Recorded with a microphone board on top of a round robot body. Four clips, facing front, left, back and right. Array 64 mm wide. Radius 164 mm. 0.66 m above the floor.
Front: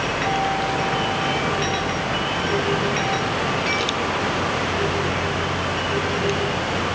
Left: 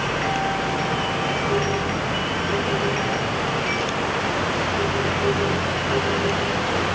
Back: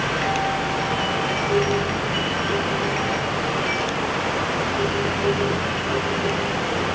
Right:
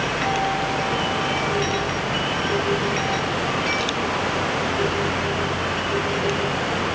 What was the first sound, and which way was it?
Only background noise.